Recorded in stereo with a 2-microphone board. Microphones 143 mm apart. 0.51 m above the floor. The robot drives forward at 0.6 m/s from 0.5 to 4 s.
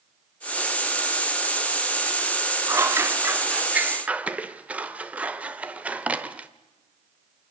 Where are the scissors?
20° right (ahead or behind), 0.5 m; by 6.5 s 10° right (ahead or behind), 1.1 m.